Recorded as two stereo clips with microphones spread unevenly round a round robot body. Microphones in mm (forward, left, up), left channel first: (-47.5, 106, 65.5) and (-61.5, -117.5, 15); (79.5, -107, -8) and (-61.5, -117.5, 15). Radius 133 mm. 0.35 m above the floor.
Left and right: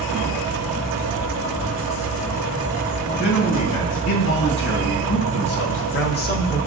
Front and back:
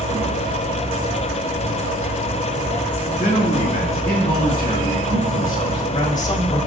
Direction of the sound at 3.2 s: 80° left.